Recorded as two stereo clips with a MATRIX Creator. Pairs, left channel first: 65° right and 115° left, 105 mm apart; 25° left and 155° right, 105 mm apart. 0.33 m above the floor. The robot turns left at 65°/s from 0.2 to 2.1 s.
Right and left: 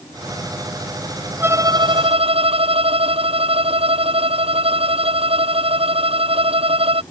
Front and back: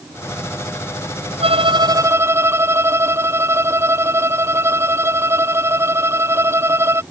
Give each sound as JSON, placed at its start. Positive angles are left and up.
{"t": 1.4, "sound": "a violin", "azimuth_deg": 180}